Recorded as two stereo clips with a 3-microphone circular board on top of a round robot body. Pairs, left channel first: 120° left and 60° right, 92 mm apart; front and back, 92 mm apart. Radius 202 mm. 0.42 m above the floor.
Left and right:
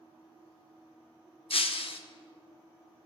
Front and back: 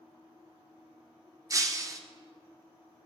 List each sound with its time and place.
1.5 s breaking glass: 125° left, 1.1 m